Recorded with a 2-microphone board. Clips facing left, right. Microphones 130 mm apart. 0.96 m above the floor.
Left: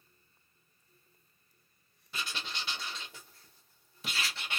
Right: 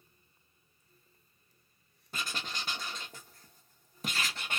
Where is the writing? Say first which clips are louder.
Right 1 dB; 45° right (ahead or behind), 0.8 m.